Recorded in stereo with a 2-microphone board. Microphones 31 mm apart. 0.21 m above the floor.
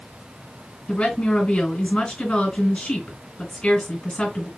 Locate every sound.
0.9 s a woman speaking: 35° left (ahead or behind), 2.5 m